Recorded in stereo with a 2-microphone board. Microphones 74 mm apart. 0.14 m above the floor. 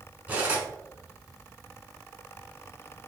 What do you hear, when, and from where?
0.3 s cutlery clinking: 20° right (ahead or behind), 1.0 m